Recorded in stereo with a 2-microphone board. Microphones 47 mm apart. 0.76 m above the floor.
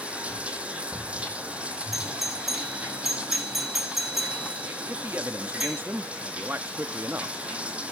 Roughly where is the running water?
Right.